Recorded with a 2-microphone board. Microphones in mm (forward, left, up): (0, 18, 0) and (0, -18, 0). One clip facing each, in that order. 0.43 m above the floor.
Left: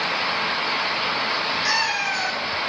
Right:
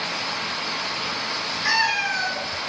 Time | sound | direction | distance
1.6 | a cat meowing | 10° right (ahead or behind) | 2 m